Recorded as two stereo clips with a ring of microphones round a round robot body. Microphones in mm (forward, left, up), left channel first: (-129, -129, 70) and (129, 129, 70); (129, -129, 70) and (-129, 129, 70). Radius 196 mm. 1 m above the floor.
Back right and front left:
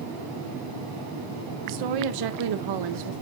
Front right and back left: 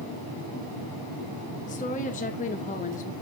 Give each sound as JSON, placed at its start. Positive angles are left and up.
{"t": 1.7, "sound": "a woman speaking", "azimuth_deg": 25, "distance_m": 0.9}